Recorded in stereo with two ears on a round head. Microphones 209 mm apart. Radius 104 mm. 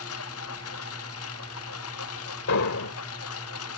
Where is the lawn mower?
65° left (ahead or behind).